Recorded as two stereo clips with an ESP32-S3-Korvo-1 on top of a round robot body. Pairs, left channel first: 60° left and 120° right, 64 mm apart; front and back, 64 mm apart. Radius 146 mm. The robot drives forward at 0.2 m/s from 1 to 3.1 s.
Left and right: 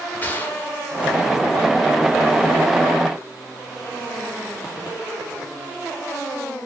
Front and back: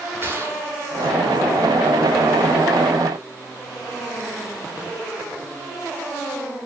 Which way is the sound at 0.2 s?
125° left.